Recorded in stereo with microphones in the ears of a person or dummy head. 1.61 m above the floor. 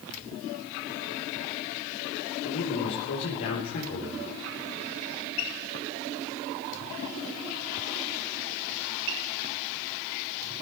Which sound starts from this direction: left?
A man speaking, at 2.4 s.